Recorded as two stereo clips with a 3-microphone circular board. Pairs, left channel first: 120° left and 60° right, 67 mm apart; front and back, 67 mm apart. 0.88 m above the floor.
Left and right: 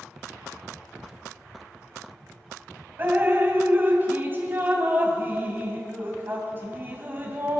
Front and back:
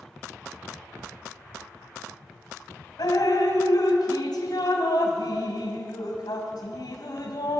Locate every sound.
3.0 s dripping: straight ahead, 2.5 m